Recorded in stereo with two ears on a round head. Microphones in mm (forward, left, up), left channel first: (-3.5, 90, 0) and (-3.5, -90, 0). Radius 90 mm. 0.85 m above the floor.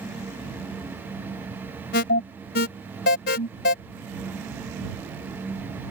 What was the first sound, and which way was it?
An alarm, 50° left (ahead or behind).